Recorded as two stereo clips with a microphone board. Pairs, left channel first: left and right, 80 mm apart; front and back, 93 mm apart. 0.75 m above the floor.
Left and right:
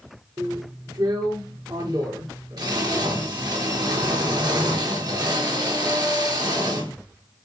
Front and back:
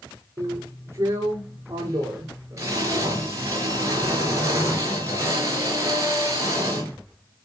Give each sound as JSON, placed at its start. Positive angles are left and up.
{"t": 0.4, "sound": "a drill", "azimuth_deg": -125, "distance_m": 4.5}